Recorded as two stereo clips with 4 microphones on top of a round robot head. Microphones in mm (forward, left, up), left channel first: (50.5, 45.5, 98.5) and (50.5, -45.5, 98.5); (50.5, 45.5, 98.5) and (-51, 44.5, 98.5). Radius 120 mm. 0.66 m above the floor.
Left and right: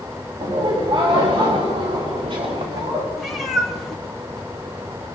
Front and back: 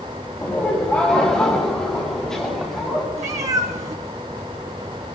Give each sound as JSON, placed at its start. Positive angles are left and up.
{"t": 0.4, "sound": "laughter", "azimuth_deg": -75, "distance_m": 3.5}
{"t": 3.2, "sound": "a cat meowing", "azimuth_deg": 180, "distance_m": 3.0}